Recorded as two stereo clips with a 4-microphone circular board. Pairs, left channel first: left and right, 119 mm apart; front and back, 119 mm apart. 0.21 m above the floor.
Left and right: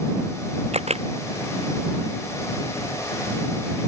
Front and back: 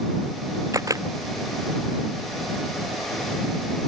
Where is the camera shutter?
115° right.